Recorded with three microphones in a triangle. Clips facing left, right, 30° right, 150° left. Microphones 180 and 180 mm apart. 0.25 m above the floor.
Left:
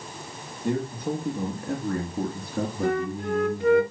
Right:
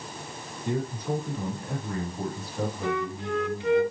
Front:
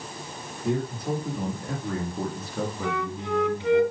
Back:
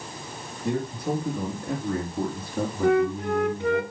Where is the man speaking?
60° left, 3.5 m; by 3.8 s 85° left, 2 m.